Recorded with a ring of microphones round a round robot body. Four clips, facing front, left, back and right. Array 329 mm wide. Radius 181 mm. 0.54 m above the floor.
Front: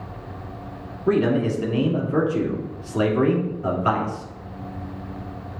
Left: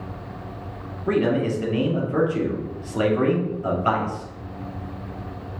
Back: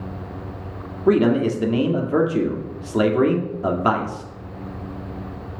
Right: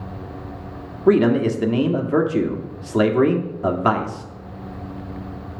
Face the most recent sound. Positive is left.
turn(degrees=-125)